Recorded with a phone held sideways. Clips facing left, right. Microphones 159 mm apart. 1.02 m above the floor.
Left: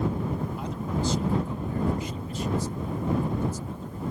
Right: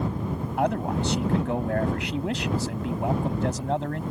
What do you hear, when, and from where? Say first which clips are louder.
0.6 s a man speaking: right 5 dB; 65° right (ahead or behind); by 4.0 s 90° right